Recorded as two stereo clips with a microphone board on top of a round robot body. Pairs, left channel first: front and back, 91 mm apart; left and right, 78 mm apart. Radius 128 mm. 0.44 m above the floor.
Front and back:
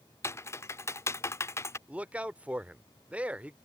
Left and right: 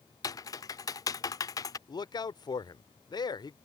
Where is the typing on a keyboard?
55° left.